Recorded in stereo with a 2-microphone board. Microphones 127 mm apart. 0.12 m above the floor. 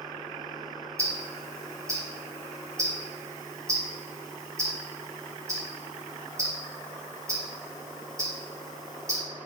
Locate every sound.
1.0 s ticking: 25° right (ahead or behind), 3.5 m